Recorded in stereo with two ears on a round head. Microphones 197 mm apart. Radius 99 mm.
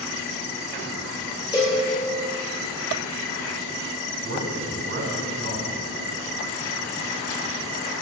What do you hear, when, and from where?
1.5 s a cowbell: 20° left (ahead or behind), 1.8 m
4.2 s a man speaking: 60° right (ahead or behind), 1.8 m